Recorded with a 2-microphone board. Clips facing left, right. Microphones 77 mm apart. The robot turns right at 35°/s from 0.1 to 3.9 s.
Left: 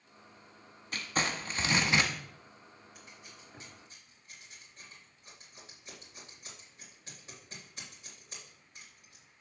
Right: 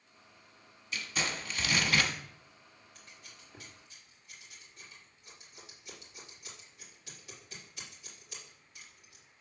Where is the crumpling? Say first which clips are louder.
Left 3 dB; 115° left, 0.9 m; by 2.1 s 160° left, 0.9 m.